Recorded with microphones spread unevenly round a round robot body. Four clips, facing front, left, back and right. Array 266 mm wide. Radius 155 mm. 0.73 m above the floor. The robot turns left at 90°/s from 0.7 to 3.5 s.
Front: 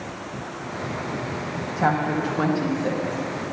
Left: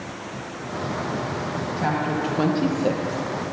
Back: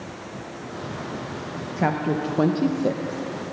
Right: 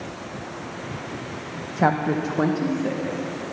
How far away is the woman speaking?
About 0.8 m.